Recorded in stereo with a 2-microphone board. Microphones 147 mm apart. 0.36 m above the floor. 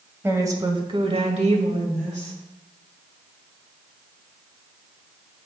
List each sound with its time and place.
0.2 s a woman speaking: 15° right (ahead or behind), 1.7 m; by 2.4 s 50° right (ahead or behind), 2 m